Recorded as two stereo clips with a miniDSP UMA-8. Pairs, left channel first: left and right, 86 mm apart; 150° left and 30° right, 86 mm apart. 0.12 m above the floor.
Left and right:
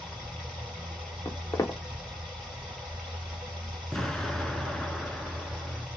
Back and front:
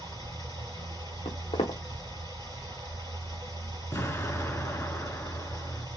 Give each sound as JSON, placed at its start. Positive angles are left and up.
{"t": 0.0, "sound": "running water", "azimuth_deg": -175, "distance_m": 2.0}
{"t": 1.2, "sound": "footsteps", "azimuth_deg": 145, "distance_m": 1.1}
{"t": 3.9, "sound": "an explosion", "azimuth_deg": 170, "distance_m": 0.5}